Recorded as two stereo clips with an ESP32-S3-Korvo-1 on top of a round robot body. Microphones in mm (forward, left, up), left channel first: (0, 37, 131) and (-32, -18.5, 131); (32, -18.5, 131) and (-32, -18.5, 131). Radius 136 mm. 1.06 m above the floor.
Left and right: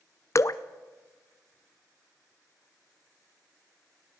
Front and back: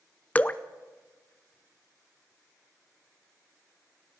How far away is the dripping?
About 0.8 m.